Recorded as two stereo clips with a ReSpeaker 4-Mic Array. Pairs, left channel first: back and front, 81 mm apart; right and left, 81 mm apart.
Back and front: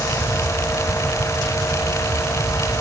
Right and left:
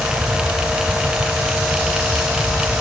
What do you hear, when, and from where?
Only background noise.